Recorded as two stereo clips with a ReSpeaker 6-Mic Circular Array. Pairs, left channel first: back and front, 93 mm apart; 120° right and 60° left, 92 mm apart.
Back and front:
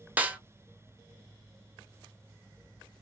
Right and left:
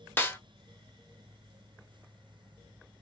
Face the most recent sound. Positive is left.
turn(degrees=-65)